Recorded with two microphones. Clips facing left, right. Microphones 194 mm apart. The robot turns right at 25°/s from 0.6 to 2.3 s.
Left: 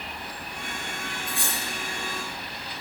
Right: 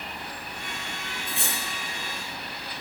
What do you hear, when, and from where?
1.3 s cutlery clinking: 30° right (ahead or behind), 6 m; by 1.6 s 20° right (ahead or behind), 6 m